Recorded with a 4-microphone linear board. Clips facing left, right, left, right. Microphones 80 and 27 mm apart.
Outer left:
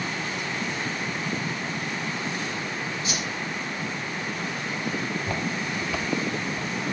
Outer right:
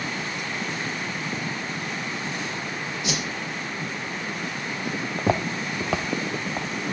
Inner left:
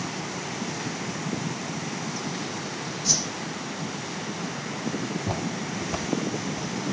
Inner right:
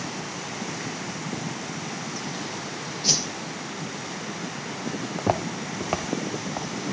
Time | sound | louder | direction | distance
3.0 | a whoosh | outer right 1 dB, inner right 3 dB | 80° right | 3.5 m
5.2 | footsteps | outer right 4 dB, inner right 4 dB | 75° right (ahead or behind) | 1.3 m